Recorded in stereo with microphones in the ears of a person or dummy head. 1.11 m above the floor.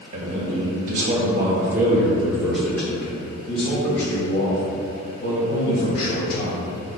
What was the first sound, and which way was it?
A man speaking, 55° right (ahead or behind).